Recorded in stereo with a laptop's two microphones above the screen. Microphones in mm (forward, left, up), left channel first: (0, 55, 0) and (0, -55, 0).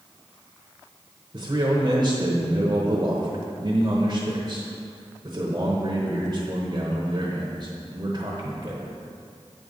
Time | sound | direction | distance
1.3 | a man speaking | 35° right (ahead or behind) | 0.9 m